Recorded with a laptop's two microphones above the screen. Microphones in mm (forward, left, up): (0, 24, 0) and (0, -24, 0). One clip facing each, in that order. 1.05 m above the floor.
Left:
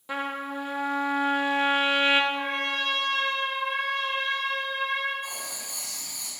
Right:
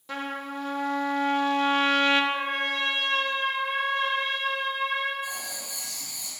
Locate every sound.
0.1 s a trumpet: 15° left (ahead or behind), 0.8 m
2.3 s a trumpet: 45° right (ahead or behind), 3 m
5.2 s writing: 55° left (ahead or behind), 5 m